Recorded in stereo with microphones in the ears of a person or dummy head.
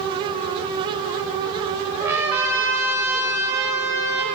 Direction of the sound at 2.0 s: 15° right (ahead or behind).